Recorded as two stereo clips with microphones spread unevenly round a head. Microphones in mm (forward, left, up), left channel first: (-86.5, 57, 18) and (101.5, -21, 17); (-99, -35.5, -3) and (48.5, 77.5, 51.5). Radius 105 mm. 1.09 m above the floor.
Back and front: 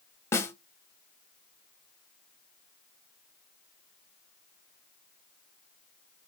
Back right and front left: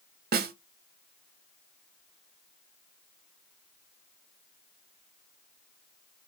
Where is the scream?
I don't hear a scream.